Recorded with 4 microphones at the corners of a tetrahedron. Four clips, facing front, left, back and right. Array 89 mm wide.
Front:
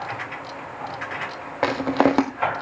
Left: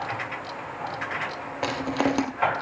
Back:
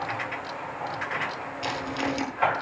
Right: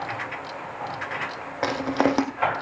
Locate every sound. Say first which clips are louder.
1.6 s crushing: right 3 dB, front 11 dB; 15° right, 2 m